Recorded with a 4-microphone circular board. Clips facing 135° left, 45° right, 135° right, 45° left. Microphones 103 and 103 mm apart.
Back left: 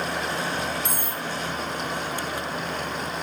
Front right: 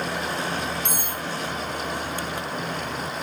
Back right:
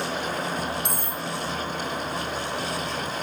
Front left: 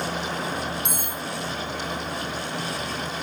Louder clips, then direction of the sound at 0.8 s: Even, back right 1 dB; straight behind.